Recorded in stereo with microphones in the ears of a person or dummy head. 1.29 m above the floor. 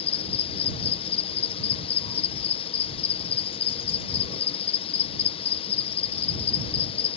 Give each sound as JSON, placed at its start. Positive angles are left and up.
{"t": 0.0, "sound": "an insect", "side_deg": 35}